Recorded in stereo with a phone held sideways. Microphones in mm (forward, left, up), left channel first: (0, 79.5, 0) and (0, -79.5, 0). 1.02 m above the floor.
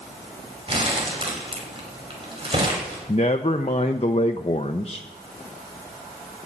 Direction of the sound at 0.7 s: 35° right (ahead or behind).